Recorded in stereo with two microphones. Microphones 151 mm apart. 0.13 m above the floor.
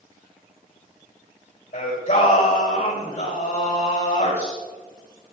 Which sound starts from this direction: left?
Singing, at 1.7 s.